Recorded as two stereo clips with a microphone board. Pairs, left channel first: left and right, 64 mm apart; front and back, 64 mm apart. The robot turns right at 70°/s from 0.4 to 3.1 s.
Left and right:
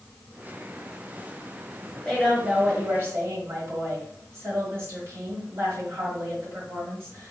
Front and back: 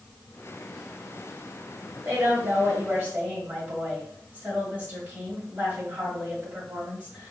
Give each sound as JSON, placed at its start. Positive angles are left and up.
{"t": 2.0, "sound": "a woman speaking", "azimuth_deg": 160, "distance_m": 1.7}